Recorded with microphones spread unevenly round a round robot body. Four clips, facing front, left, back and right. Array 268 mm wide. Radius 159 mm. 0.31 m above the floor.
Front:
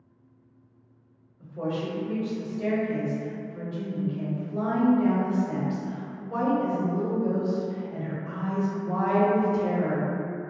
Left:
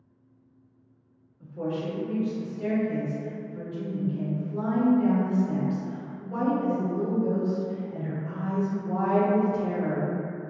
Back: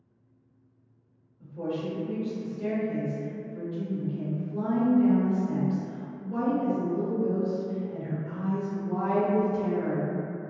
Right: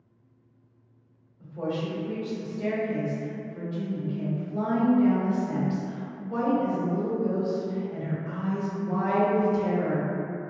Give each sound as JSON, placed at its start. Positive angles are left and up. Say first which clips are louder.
{"t": 1.4, "sound": "a woman speaking", "louder": "even, front 2 dB", "azimuth_deg": -5, "distance_m": 1.0}